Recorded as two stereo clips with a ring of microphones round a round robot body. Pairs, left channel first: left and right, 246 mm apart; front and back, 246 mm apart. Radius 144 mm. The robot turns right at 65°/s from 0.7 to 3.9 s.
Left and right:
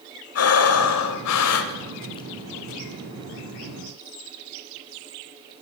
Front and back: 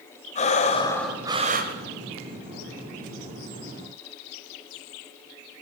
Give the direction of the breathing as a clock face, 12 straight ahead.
10 o'clock.